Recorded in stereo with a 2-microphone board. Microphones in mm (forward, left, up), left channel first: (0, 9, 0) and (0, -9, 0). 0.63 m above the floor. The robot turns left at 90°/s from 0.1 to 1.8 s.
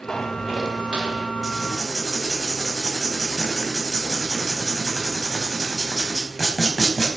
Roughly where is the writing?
Behind.